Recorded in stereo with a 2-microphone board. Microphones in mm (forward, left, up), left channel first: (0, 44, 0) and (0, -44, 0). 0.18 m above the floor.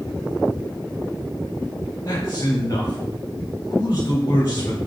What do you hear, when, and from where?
2.0 s a man speaking: 40° left (ahead or behind), 3.5 m